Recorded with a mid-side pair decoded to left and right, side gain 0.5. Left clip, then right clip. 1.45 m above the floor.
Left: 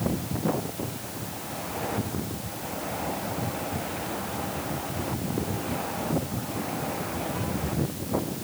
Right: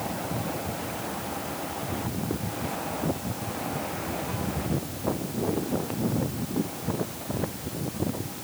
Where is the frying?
No frying in this recording.